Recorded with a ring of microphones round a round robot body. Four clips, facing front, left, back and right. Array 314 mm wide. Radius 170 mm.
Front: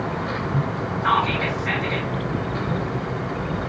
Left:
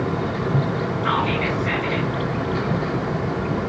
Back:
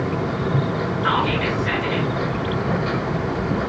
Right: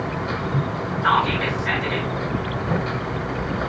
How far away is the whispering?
About 3 m.